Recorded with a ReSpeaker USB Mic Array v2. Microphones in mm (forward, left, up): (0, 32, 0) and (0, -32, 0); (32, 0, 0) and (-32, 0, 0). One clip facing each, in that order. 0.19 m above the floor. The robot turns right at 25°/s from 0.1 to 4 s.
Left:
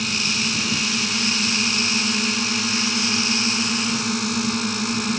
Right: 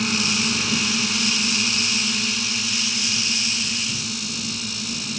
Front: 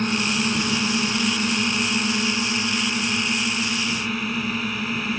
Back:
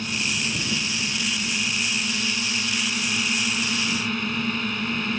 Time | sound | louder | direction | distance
0.0 | a drone | right 2 dB, front 5 dB | 15° right | ?